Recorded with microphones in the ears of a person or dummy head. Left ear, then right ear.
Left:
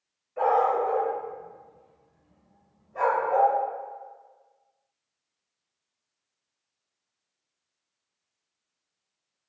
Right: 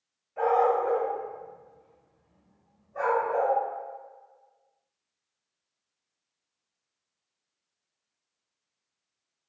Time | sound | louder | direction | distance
0.4 | a dog barking | left 1 dB | 10° right (ahead or behind) | 1.8 m